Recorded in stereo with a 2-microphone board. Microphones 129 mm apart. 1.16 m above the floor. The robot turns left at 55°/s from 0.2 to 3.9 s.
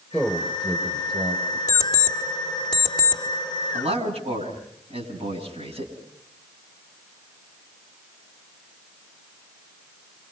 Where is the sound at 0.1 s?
15° left (ahead or behind), 4.5 m; by 1.6 s 65° right (ahead or behind), 4.5 m.